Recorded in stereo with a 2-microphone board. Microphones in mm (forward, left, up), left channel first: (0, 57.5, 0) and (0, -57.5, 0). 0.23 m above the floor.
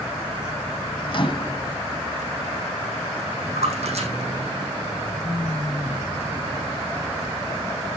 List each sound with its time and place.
1.1 s a microwave: 50° left (ahead or behind), 1.2 m
3.5 s a splash: 65° right (ahead or behind), 7 m